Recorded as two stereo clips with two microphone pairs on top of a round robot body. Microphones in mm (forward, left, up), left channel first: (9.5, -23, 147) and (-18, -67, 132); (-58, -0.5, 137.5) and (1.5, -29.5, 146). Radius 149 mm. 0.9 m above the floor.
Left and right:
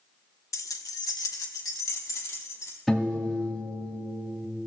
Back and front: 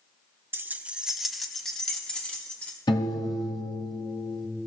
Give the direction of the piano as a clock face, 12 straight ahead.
7 o'clock.